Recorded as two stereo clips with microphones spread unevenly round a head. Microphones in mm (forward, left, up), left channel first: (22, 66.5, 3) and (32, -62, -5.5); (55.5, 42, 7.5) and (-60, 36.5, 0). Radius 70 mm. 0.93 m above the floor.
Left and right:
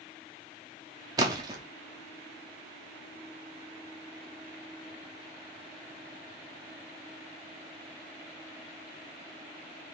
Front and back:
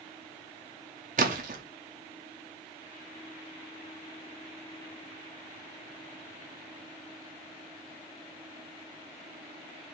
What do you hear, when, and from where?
1.2 s a splash: 150° right, 0.6 m